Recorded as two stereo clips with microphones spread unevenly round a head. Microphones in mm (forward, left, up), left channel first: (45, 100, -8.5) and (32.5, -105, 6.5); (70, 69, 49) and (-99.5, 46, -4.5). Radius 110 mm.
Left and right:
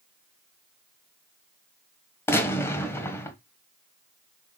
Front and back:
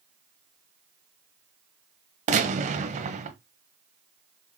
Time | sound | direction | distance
2.3 | a gunshot | 160° left | 1.1 m